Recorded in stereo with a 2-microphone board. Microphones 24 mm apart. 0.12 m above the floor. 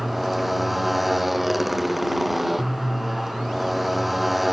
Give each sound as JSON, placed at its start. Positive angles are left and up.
{"t": 0.0, "sound": "a motorcycle", "side_deg": -5}